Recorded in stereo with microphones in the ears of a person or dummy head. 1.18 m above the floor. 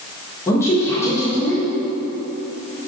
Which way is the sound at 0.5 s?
15° left (ahead or behind).